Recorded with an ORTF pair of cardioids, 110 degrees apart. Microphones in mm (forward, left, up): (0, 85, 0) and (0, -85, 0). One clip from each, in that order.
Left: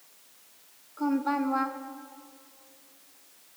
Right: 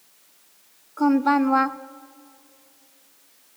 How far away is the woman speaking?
About 0.5 m.